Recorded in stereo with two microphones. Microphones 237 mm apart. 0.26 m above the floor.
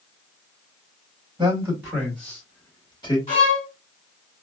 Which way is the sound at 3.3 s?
25° left (ahead or behind).